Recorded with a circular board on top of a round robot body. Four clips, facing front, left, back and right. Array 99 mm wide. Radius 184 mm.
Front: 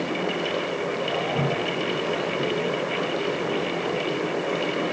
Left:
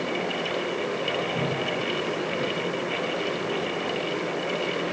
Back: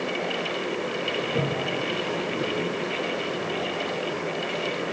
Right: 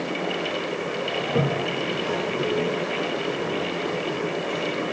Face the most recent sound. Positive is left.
turn(degrees=-95)